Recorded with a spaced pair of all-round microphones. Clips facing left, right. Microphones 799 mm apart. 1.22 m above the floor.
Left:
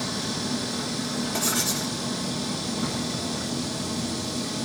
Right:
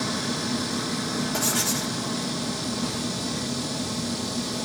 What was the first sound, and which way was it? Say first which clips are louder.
Writing: right 1 dB; 20° right (ahead or behind).